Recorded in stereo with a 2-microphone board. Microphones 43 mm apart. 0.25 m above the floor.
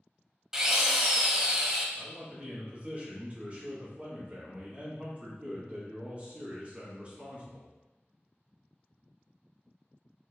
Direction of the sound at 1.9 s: 30° right (ahead or behind).